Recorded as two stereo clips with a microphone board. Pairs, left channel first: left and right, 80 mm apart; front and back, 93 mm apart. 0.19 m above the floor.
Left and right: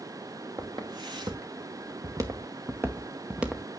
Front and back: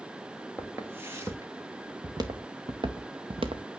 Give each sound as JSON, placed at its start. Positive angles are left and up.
{"t": 0.6, "sound": "footsteps", "azimuth_deg": -110, "distance_m": 2.5}